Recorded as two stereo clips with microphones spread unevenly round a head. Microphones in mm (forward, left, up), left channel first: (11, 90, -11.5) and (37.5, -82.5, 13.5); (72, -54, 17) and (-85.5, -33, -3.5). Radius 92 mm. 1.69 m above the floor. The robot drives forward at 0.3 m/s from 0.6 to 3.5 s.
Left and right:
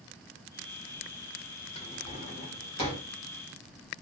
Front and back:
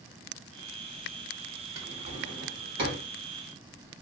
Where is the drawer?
145° left, 1.1 m; by 3.0 s 160° left, 1.4 m.